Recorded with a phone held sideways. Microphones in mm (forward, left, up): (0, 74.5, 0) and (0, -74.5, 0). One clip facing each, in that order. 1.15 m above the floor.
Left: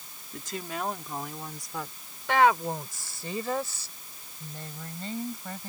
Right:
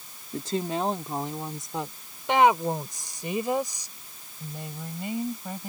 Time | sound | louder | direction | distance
0.3 | a woman speaking | right 7 dB | 35° right (ahead or behind) | ?